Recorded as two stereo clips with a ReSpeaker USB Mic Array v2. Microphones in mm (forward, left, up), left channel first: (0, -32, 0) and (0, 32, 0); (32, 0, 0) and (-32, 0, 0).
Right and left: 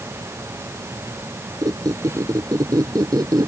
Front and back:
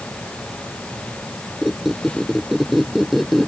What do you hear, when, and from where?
1.6 s a squeak: 90° left